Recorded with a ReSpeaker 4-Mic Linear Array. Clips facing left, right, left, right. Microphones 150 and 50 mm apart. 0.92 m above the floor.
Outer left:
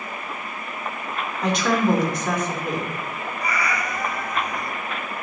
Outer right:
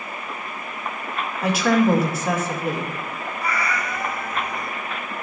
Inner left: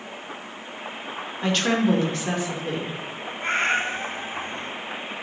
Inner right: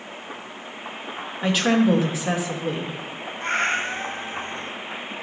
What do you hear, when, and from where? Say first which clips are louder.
1.4 s a woman speaking: outer right 2 dB, inner right 2 dB; 5° right (ahead or behind), 2.5 m
3.4 s a cat meowing: even, even; 15° left (ahead or behind), 2.5 m